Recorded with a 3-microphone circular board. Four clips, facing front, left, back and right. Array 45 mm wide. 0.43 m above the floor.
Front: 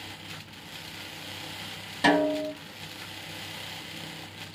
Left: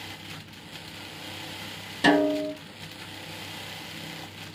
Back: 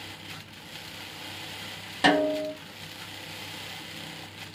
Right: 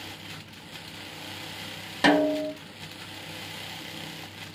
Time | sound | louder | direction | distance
2.0 | a snare drum | even, even | 115° right | 2 m